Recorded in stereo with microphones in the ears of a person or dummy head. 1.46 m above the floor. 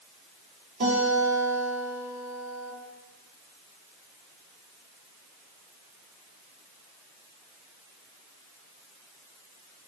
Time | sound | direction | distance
0.8 | a guitar | 50° right (ahead or behind) | 1.8 m